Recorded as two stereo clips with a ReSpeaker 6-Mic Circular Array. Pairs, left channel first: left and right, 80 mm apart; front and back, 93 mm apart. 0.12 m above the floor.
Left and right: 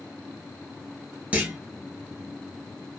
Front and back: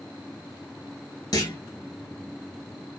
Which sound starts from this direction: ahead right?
A clunk, at 1.3 s.